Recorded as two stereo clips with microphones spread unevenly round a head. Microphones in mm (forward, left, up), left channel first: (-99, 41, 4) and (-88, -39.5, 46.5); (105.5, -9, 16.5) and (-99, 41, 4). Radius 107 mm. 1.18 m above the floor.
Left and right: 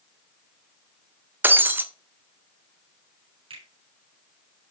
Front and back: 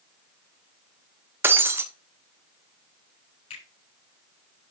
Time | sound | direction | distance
1.4 | breaking glass | 115° right | 0.8 m
3.5 | a finger snap | 80° right | 6.5 m